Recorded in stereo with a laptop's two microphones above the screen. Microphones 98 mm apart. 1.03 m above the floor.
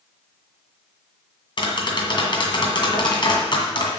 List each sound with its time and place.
1.6 s tapping: 55° left (ahead or behind), 1.8 m